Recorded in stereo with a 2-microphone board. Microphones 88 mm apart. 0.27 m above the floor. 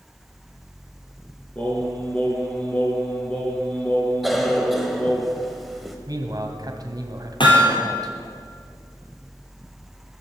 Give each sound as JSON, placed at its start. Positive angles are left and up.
{"t": 1.6, "sound": "singing", "side_deg": 10, "distance_m": 3.5}
{"t": 4.2, "sound": "a cough", "side_deg": 0, "distance_m": 1.0}
{"t": 6.1, "sound": "a man speaking", "side_deg": -45, "distance_m": 1.7}
{"t": 7.4, "sound": "hammering", "side_deg": 65, "distance_m": 3.5}